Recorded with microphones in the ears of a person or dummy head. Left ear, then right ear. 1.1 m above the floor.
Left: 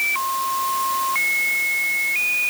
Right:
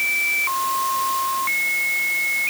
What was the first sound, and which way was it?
Only background noise.